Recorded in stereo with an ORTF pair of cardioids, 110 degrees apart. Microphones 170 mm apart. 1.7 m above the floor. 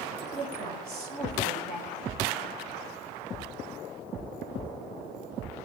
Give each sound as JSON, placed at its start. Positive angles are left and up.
{"t": 0.3, "sound": "a woman speaking", "azimuth_deg": -60, "distance_m": 1.9}